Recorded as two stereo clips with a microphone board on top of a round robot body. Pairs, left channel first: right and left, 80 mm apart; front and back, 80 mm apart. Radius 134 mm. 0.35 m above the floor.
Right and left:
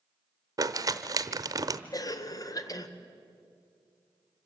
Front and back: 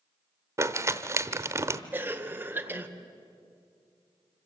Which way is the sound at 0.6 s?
130° left.